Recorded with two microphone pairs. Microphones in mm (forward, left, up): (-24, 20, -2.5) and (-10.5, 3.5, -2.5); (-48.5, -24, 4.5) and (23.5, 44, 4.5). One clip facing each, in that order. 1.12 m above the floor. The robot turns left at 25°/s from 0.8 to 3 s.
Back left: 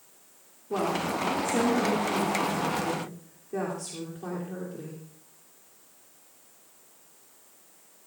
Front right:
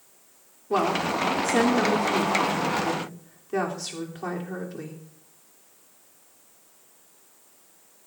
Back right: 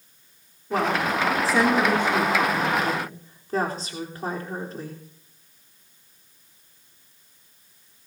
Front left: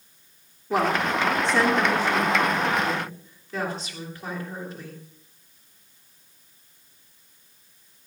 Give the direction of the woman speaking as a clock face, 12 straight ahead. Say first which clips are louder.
Front right 4 dB, front left 1 dB; 1 o'clock.